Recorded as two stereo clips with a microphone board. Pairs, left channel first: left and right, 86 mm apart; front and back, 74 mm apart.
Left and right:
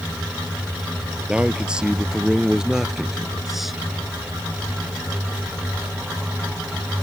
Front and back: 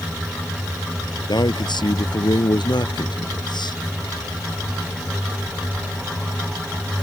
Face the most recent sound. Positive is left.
turn(degrees=0)